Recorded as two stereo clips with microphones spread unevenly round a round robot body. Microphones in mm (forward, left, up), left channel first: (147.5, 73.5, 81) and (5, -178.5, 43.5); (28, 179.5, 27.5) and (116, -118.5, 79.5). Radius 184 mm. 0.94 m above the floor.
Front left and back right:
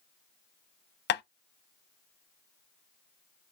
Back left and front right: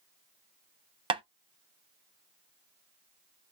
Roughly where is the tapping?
Ahead.